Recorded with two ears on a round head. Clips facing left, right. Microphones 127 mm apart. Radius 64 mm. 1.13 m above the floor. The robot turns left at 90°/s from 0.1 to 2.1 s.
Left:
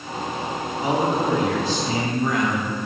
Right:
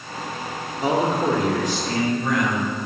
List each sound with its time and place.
0.8 s a man speaking: 90° right, 3 m; by 2.7 s 155° left, 3 m